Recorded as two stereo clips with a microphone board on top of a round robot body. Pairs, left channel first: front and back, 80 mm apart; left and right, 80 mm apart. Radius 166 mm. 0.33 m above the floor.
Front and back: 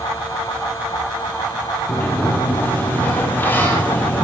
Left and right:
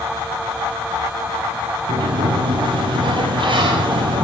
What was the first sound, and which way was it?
A sliding door, 70° right.